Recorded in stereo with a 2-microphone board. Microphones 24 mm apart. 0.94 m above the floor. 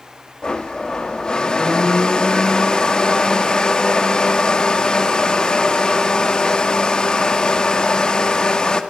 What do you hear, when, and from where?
0.4 s a blender: 30° left (ahead or behind), 1.9 m